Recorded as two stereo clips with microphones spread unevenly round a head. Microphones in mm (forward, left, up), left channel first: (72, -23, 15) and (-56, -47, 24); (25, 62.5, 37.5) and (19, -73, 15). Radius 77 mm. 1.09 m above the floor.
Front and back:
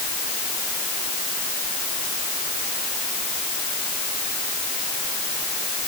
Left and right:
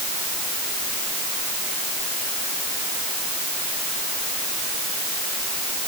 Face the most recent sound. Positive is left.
No sound to turn to.